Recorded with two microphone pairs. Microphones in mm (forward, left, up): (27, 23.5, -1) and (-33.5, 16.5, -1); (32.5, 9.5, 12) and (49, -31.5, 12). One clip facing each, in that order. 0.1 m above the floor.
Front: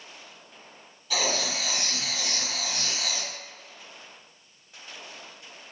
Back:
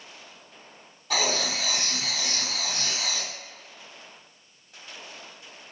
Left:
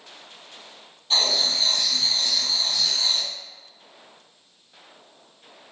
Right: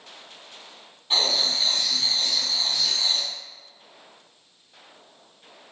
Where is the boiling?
I don't hear boiling.